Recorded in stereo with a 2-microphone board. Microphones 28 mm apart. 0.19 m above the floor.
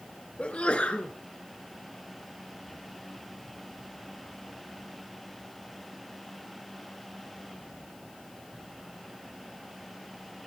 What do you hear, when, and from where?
0.4 s a sneeze: 45° left (ahead or behind), 2 m